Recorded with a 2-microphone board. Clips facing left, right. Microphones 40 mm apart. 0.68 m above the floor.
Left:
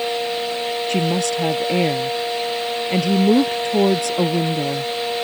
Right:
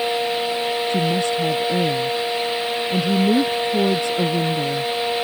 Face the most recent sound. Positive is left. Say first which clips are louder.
# left 2 dB
turn(degrees=85)